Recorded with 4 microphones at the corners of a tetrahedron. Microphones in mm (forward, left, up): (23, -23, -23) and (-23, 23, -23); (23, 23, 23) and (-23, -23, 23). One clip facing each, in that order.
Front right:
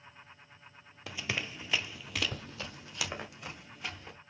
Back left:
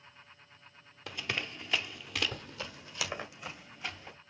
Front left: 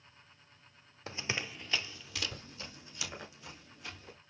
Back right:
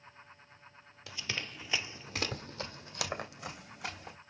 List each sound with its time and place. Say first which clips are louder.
1.1 s running footsteps: even, front left 2 dB; 40° left, 1.1 m; by 4.2 s 135° right, 3.5 m